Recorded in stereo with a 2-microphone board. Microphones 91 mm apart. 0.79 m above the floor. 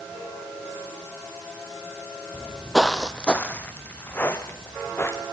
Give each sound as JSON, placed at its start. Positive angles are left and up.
{"t": 2.3, "sound": "footsteps", "side_deg": -15, "distance_m": 0.8}